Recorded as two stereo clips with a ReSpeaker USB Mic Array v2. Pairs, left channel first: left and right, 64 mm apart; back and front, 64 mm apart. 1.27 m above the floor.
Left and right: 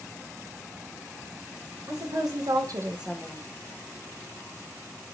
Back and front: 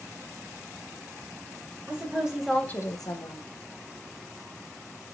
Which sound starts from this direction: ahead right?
A woman speaking, at 1.9 s.